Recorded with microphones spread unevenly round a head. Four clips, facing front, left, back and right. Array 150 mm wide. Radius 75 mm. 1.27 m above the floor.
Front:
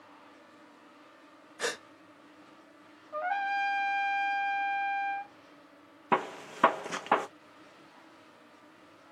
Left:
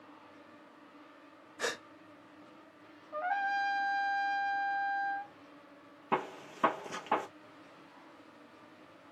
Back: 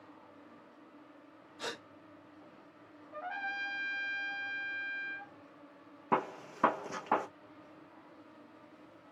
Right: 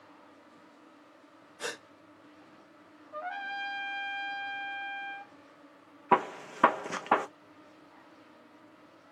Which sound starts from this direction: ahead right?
A gunshot, at 6.1 s.